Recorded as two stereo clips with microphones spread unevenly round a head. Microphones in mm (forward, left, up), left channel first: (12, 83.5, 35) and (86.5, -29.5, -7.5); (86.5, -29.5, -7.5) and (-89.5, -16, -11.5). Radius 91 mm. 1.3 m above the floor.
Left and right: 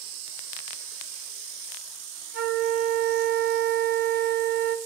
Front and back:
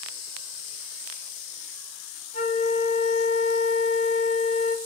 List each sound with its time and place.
2.3 s a flute: 50° right, 1.5 m